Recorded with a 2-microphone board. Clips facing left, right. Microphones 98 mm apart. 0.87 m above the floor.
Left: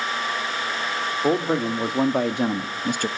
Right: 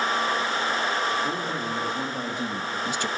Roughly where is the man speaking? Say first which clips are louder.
Left 7 dB; left.